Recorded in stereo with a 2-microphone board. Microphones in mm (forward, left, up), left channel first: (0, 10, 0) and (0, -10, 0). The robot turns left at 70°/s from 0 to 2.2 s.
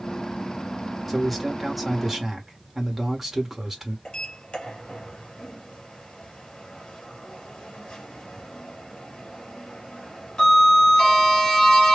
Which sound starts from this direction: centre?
A man speaking, at 1.1 s.